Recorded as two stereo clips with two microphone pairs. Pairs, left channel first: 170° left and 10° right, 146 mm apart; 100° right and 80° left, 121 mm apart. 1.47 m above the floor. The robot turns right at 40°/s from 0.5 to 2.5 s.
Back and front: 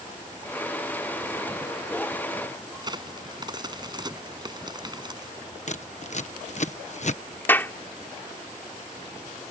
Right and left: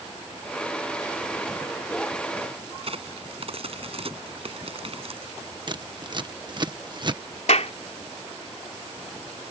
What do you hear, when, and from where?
2.8 s a crack: 45° left
5.7 s scissors: 135° left
7.5 s a clap: 115° right